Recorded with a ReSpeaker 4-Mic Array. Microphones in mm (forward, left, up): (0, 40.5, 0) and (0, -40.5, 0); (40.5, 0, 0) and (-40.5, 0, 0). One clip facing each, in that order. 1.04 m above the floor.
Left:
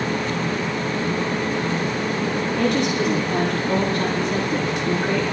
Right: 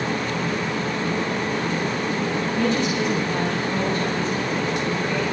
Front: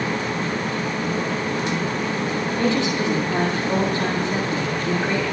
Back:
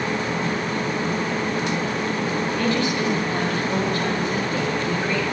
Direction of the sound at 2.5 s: 65° left.